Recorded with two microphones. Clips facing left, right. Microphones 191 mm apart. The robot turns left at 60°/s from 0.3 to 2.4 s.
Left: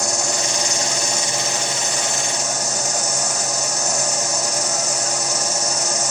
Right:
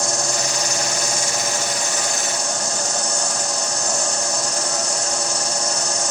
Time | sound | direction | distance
0.0 | an insect | 115° left | 2.5 m